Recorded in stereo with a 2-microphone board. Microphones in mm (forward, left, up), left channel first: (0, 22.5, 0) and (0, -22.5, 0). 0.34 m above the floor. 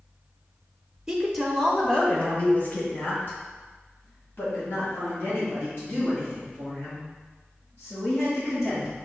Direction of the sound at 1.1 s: 15° right (ahead or behind).